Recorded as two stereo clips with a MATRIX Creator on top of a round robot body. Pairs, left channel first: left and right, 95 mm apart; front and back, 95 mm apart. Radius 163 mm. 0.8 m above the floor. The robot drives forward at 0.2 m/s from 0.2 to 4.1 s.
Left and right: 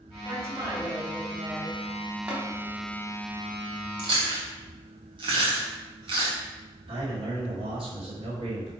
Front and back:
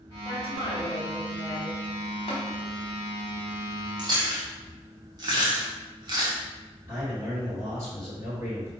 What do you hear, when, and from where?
0.2 s a woman speaking: 30° right, 2 m; by 1.8 s 40° right, 1.8 m
2.3 s tapping: 10° right, 1.1 m
4.0 s chewing: 130° right, 0.7 m
6.9 s a man speaking: 115° right, 1.5 m